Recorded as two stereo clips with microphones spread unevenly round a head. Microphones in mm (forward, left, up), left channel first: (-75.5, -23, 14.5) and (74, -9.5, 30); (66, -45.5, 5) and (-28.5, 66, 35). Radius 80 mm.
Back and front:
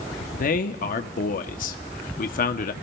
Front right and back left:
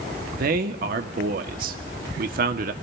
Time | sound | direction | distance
0.3 | a man speaking | 165° left | 0.8 m